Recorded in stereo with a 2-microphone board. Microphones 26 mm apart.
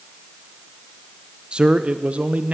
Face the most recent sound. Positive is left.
turn(degrees=-75)  # may be behind; listen again after turning